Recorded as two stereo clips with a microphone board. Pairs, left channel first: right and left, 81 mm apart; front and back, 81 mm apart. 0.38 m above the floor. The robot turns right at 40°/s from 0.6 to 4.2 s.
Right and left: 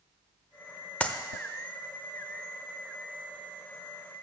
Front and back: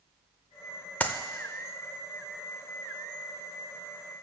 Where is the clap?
40° right, 0.6 m; by 1.2 s 35° right, 0.6 m.